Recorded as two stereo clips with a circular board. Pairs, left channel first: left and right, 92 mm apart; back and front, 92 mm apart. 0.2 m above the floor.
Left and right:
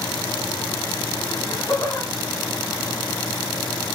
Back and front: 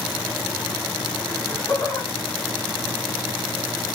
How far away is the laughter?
About 1.8 m.